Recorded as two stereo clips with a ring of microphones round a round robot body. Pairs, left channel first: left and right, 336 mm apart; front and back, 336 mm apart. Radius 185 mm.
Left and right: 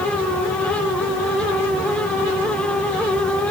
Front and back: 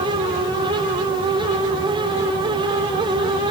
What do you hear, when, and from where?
Only background noise.